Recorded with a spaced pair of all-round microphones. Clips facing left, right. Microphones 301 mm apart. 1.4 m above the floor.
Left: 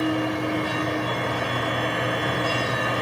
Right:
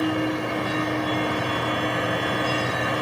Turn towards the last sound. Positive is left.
turn(degrees=-55)  # may be behind; listen again after turning